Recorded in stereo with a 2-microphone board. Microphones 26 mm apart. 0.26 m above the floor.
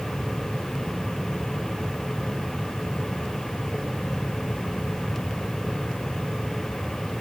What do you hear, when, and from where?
Only background noise.